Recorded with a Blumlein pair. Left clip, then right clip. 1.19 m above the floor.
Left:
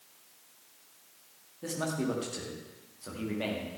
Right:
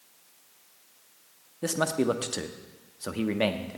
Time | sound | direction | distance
1.6 | a man speaking | 60° right | 1.2 m